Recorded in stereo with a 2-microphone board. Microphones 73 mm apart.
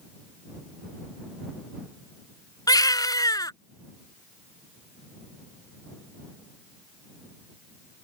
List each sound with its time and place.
2.7 s a baby crying: 65° left (ahead or behind)